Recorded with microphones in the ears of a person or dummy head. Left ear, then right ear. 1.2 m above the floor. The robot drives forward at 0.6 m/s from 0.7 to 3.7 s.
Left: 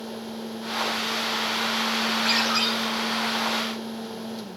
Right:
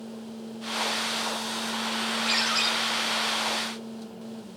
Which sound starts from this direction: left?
A ringtone, at 2.2 s.